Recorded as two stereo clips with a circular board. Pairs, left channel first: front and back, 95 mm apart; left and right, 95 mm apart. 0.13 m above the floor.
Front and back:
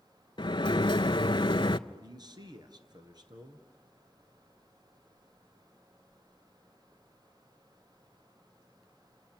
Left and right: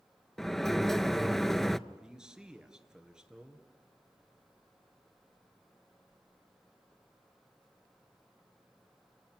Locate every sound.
0.4 s a sliding door: 5° left, 0.5 m
1.9 s a man speaking: 170° right, 2.5 m